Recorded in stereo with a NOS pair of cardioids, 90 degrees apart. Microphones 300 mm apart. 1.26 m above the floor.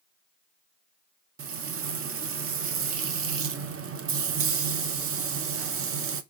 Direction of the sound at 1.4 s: 50° right.